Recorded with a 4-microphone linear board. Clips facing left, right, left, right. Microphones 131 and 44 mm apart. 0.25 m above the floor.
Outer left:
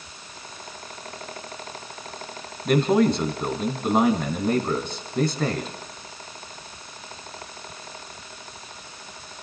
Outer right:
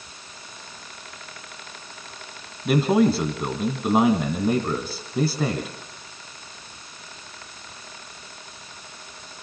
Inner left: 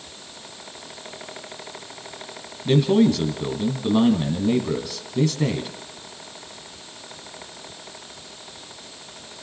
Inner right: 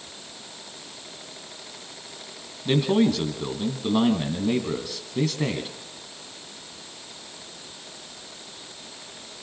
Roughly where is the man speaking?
Centre.